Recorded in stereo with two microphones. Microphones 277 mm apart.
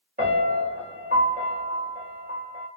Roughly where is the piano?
Right.